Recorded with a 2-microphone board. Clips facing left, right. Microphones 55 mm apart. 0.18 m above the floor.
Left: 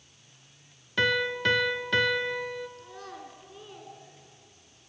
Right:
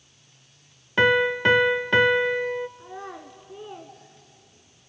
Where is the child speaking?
25° right (ahead or behind), 1.3 m.